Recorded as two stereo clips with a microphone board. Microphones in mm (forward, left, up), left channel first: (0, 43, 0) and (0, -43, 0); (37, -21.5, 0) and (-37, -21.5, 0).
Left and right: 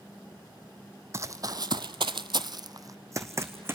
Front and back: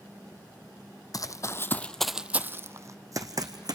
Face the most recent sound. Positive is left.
turn(degrees=-150)